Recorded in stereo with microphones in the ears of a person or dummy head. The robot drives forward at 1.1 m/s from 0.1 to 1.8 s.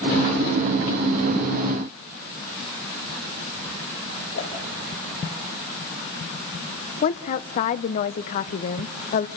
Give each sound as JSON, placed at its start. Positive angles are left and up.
{"t": 4.3, "sound": "a whoosh", "side_deg": 80, "distance_m": 4.5}
{"t": 7.0, "sound": "a woman speaking", "side_deg": 40, "distance_m": 0.9}